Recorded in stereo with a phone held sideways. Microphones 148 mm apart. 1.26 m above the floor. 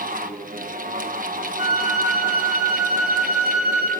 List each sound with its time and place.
0.0 s a fan: 75° right (ahead or behind), 1.2 m
1.6 s a flute: 80° right, 4 m